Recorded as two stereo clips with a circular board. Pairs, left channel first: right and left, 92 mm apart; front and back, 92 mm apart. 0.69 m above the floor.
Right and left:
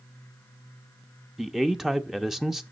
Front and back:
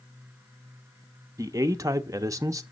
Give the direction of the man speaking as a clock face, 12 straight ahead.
6 o'clock.